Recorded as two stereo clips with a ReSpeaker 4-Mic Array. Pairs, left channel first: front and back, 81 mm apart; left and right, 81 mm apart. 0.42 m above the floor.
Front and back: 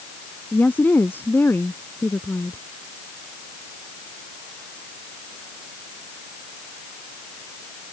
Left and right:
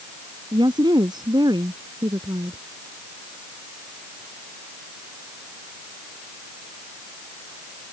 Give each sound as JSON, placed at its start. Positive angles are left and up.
{"t": 0.5, "sound": "a woman speaking", "azimuth_deg": -70}